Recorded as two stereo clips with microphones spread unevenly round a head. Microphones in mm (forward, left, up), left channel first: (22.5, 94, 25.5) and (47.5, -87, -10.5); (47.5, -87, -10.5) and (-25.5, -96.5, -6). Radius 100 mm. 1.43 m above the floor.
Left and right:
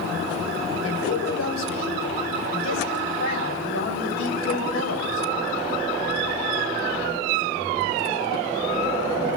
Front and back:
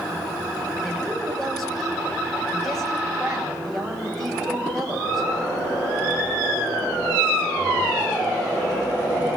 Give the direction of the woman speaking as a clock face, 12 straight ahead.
9 o'clock.